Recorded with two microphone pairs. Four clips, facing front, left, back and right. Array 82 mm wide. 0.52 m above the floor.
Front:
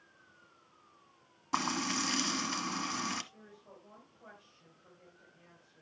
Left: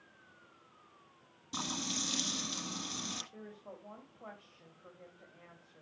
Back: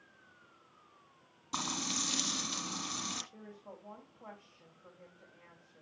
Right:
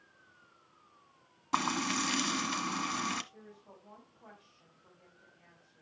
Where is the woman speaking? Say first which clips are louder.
Left 5 dB, back 5 dB; 110° left, 3 m.